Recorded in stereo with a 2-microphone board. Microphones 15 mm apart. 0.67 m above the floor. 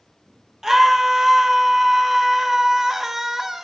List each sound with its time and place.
0.6 s a scream: 35° right (ahead or behind), 1.0 m